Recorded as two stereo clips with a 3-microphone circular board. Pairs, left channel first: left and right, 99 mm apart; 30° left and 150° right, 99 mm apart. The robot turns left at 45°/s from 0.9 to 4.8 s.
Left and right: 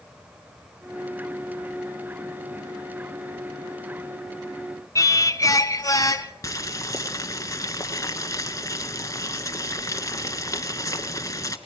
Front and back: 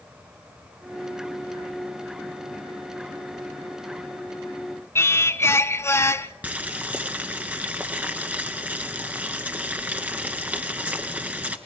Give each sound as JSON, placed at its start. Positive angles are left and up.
{"t": 5.0, "sound": "singing", "azimuth_deg": 70, "distance_m": 1.0}
{"t": 6.4, "sound": "boiling", "azimuth_deg": 140, "distance_m": 1.9}